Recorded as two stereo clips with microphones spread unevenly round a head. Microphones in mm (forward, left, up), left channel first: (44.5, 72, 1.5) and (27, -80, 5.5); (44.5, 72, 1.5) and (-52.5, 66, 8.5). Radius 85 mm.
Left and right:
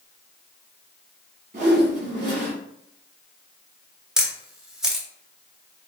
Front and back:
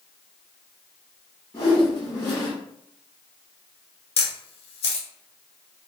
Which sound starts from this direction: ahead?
A camera shutter, at 4.2 s.